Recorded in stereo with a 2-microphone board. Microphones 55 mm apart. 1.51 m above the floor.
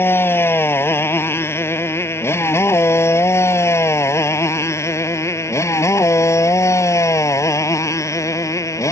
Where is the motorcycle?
45° left (ahead or behind); by 8.9 s 75° left (ahead or behind).